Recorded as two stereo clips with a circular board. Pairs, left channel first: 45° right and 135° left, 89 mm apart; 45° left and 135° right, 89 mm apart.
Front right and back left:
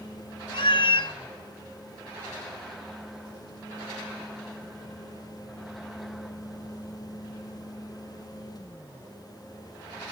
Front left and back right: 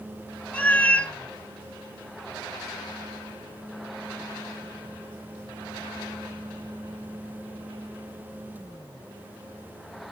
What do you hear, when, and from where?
0.5 s a cat meowing: 30° right, 0.5 m